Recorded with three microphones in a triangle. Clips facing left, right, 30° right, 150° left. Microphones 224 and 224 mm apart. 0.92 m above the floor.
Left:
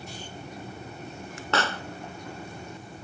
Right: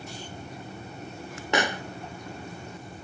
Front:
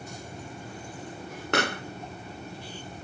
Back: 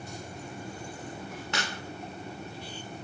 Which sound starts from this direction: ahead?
A pop, at 1.5 s.